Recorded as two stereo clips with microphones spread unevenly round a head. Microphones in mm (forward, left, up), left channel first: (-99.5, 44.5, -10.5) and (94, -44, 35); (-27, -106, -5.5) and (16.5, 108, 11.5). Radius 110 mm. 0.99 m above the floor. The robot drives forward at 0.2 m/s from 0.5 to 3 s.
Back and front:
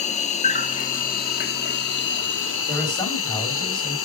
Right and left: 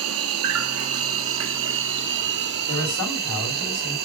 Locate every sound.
0.0 s an insect: 95° left, 0.9 m; by 4.1 s 125° left, 1.0 m
2.7 s a man speaking: 120° right, 4 m